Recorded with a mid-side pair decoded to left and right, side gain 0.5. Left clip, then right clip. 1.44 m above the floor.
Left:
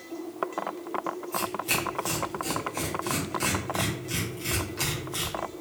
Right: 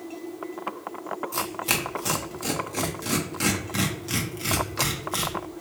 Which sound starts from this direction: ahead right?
Tearing paper, at 1.3 s.